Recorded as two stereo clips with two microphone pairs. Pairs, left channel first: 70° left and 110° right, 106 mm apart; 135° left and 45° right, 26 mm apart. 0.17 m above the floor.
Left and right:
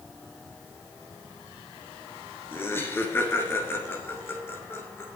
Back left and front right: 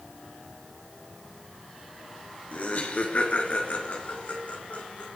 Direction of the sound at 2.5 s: 135° left.